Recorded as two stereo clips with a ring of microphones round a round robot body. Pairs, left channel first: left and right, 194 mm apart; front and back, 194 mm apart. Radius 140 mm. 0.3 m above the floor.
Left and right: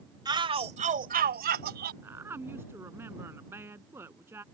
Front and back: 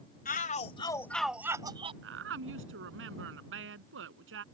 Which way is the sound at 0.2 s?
25° right.